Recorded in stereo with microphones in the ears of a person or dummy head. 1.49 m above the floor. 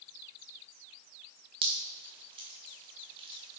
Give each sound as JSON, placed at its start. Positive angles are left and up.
{"t": 1.6, "sound": "dripping", "side_deg": -25, "distance_m": 0.8}